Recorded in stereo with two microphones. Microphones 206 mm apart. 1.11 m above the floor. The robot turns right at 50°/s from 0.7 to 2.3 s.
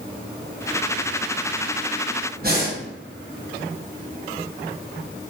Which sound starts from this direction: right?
Breathing, at 2.4 s.